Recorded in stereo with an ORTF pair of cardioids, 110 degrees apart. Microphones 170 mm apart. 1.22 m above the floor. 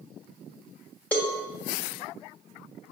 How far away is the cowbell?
About 1.8 m.